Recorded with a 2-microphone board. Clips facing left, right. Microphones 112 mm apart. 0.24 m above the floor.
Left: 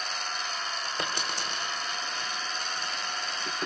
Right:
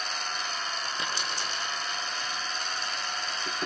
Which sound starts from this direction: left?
A dropped coin, at 1.0 s.